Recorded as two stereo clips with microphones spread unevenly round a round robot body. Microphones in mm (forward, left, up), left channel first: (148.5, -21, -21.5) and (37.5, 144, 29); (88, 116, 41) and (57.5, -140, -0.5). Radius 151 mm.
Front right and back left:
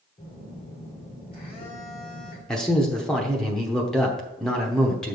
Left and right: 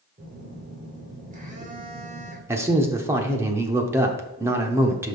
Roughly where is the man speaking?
Right.